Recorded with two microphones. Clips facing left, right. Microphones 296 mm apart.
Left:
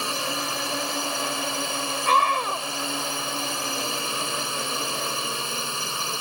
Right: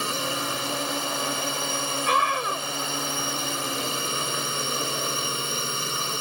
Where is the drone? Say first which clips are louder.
Right 1 dB; 20° right (ahead or behind).